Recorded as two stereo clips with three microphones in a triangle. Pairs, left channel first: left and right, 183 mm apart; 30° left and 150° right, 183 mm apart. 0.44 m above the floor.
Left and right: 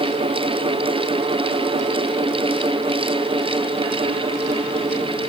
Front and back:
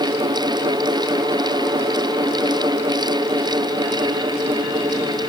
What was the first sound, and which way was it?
Only background noise.